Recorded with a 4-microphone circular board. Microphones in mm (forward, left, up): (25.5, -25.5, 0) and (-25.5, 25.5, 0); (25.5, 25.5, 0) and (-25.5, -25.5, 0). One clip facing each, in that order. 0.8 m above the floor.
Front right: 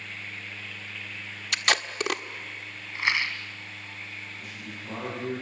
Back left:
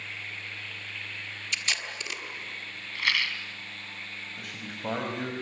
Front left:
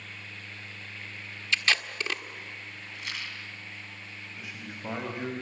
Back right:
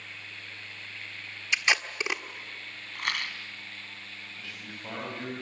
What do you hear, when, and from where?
1.5 s tape being pulled: 65° right, 1.4 m
3.0 s a rattle: 115° right, 2 m
4.4 s a man speaking: 115° left, 5.5 m